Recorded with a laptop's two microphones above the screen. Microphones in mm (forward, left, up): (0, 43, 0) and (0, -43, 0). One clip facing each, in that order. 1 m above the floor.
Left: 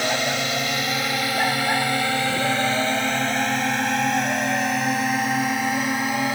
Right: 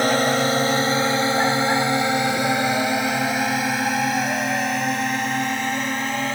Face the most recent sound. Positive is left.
turn(degrees=10)  # may be behind; listen again after turning